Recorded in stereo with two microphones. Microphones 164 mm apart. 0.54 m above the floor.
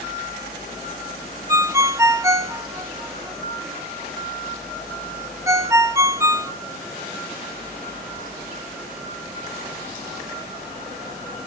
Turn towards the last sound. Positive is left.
turn(degrees=-20)  # may be behind; listen again after turning